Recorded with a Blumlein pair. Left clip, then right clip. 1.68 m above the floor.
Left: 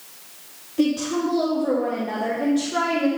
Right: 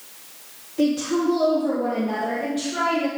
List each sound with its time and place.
0.8 s a woman speaking: 10° left, 2.0 m; by 3.1 s 60° left, 1.9 m